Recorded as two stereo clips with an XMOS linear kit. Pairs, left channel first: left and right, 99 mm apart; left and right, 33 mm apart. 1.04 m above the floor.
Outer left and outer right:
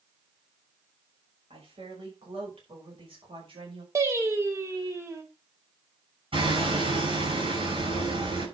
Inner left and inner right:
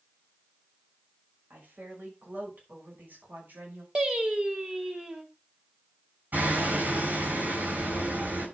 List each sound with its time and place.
1.5 s a woman speaking: 75° right (ahead or behind), 6 m; by 3.9 s 65° right (ahead or behind), 5.5 m
4.0 s singing: 30° right (ahead or behind), 2.5 m
6.3 s hammering: 65° right (ahead or behind), 7 m